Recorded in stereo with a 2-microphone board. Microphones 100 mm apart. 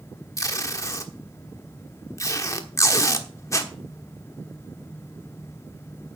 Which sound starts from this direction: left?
Tape being pulled, at 0.4 s.